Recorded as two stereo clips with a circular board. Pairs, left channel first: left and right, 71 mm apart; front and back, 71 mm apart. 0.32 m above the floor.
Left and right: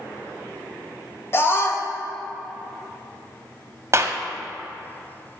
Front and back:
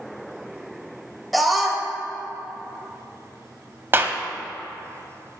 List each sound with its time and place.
1.3 s a scream: 90° left, 1.8 m
3.9 s a clap: 125° right, 1.2 m